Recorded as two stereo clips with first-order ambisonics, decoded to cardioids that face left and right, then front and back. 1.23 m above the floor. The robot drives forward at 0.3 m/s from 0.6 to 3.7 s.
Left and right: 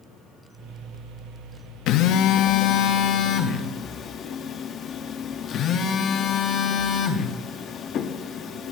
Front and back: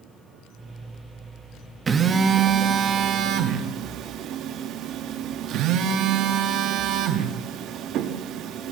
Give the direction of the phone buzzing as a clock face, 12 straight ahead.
8 o'clock.